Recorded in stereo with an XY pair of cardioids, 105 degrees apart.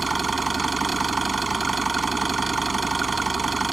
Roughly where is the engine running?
Ahead.